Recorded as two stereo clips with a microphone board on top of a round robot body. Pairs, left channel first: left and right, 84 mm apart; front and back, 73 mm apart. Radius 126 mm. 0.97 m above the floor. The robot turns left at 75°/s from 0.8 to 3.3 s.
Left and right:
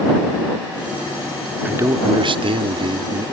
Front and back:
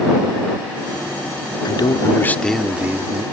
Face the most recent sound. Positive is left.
turn(degrees=-145)